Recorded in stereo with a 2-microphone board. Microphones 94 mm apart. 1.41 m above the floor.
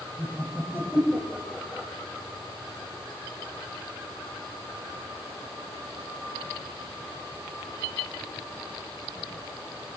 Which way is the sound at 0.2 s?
20° left (ahead or behind).